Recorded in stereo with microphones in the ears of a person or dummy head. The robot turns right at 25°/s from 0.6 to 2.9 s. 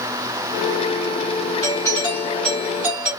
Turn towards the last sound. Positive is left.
turn(degrees=-175)